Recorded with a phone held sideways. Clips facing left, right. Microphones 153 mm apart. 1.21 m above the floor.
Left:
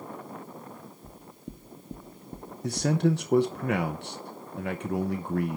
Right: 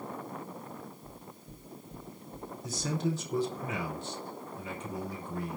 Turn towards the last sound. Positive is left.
turn(degrees=70)  # may be behind; listen again after turning